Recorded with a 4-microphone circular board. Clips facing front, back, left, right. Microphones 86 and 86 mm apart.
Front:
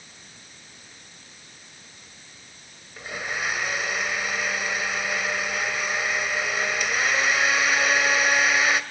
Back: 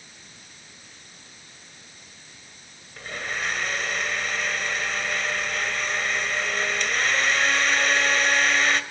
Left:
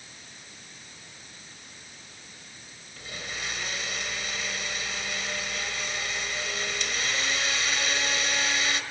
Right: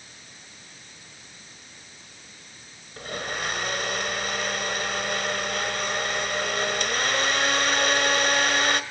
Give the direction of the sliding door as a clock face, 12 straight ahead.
No sliding door in this recording.